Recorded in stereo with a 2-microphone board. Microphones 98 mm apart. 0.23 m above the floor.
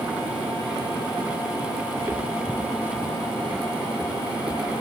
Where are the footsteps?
25° right (ahead or behind); by 4.8 s 15° right (ahead or behind).